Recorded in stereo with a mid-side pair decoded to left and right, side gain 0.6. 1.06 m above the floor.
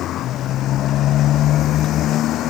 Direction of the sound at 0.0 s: 55° left.